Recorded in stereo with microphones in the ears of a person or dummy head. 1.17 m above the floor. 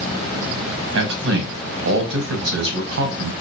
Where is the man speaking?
65° right (ahead or behind), 1.1 m.